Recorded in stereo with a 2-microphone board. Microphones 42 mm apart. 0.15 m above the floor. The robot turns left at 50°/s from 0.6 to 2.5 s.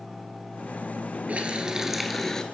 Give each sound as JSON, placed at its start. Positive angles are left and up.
{"t": 1.3, "sound": "a running tap", "azimuth_deg": -140, "distance_m": 1.5}